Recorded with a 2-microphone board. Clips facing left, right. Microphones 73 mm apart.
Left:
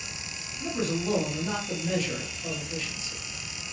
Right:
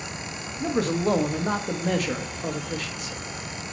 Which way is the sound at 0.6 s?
65° right (ahead or behind).